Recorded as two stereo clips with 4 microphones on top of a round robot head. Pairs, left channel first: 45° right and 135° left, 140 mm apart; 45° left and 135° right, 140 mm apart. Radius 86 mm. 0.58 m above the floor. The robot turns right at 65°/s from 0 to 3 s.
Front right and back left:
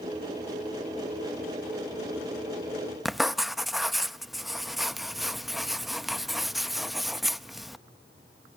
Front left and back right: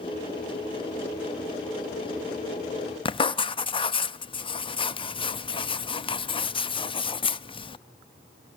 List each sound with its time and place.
3.0 s writing: 50° left, 0.8 m